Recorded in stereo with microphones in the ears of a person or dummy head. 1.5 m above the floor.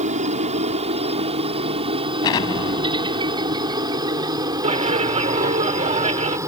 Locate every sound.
0.0 s a helicopter: 35° right (ahead or behind); by 6.5 s 15° right (ahead or behind)
2.2 s an explosion: 25° left (ahead or behind)
4.6 s a clap: 35° right (ahead or behind)